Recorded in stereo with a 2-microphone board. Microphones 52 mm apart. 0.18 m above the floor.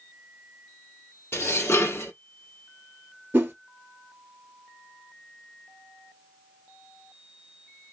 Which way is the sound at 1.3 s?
50° left (ahead or behind).